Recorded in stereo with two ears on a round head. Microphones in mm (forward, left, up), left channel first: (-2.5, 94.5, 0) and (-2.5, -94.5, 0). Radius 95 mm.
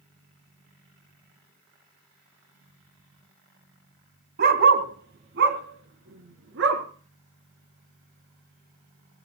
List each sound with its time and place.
4.4 s a dog barking: 45° right (ahead or behind), 1.7 m; by 6.8 s 60° right (ahead or behind), 3.5 m